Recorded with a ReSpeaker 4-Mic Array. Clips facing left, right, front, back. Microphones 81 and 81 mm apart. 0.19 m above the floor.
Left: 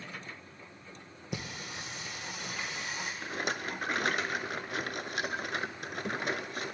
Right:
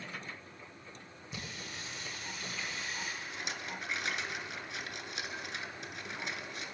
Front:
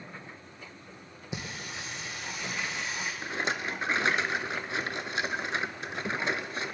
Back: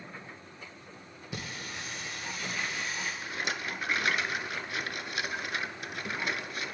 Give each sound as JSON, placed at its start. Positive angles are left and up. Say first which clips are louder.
{"t": 1.3, "sound": "singing", "louder": "left 5 dB, front 1 dB", "azimuth_deg": 70, "distance_m": 2.5}
{"t": 3.2, "sound": "a rattle", "louder": "left 7 dB, front 7 dB", "azimuth_deg": 60, "distance_m": 0.6}